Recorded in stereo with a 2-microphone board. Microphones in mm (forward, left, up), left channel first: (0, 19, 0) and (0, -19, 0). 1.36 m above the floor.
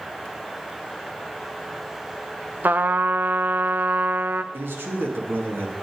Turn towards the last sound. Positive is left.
turn(degrees=-85)